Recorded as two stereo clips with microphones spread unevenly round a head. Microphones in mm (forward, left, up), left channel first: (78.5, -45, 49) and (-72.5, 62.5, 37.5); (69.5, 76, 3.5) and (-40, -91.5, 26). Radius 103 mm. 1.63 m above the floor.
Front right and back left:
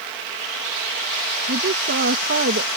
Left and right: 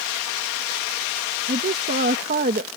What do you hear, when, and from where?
1.5 s a woman speaking: 175° right